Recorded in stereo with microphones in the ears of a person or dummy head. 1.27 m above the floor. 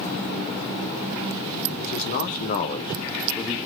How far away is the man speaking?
About 1.2 m.